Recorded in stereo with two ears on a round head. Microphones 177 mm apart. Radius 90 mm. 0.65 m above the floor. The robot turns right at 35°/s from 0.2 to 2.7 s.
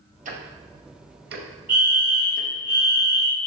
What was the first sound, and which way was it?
Ticking, 40° right (ahead or behind).